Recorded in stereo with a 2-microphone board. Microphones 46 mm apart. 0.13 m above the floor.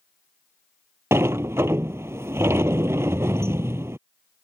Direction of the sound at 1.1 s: 75° right (ahead or behind).